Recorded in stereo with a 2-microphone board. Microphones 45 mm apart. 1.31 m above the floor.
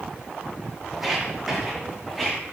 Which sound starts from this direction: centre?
Footsteps, at 0.9 s.